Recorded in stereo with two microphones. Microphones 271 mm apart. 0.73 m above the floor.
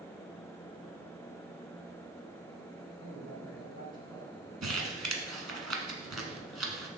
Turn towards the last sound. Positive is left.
turn(degrees=-70)  # may be behind; listen again after turning